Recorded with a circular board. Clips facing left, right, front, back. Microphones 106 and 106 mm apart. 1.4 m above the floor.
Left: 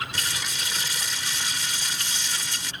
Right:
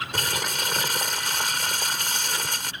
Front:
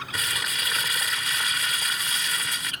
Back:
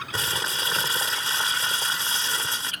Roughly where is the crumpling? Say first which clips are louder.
Right 5 dB, back 3 dB; behind right.